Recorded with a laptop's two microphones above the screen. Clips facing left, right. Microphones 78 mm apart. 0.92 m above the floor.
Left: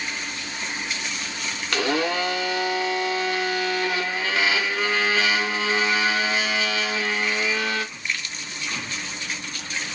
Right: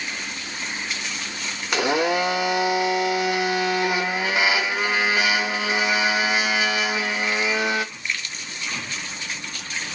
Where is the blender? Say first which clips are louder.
Right 3 dB; 15° right (ahead or behind), 1.4 m.